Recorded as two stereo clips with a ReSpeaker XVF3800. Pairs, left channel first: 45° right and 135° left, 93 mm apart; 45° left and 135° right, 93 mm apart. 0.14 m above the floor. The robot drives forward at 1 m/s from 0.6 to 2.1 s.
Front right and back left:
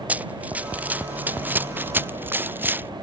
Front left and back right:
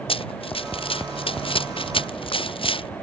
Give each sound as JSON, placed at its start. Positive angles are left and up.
{"t": 0.1, "sound": "running footsteps", "azimuth_deg": 60}